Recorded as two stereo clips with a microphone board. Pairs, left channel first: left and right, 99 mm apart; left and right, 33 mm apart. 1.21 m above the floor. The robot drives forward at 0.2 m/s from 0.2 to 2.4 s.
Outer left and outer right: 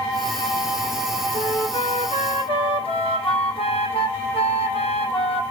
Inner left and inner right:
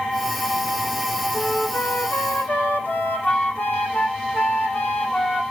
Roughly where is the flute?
Left.